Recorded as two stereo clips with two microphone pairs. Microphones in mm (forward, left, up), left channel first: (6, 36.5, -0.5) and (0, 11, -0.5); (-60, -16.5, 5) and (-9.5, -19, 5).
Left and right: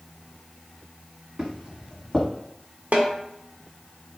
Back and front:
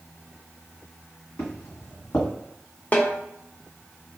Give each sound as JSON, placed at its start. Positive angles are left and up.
{"t": 1.4, "sound": "footsteps", "azimuth_deg": -160, "distance_m": 1.5}
{"t": 2.9, "sound": "a snare drum", "azimuth_deg": -125, "distance_m": 0.5}